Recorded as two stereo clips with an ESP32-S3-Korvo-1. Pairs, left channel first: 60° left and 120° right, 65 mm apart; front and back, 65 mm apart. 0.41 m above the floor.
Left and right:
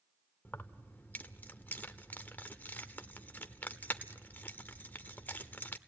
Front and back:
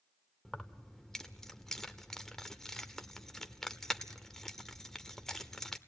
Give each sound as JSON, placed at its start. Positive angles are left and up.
{"t": 0.5, "sound": "keys jangling", "azimuth_deg": 75, "distance_m": 0.7}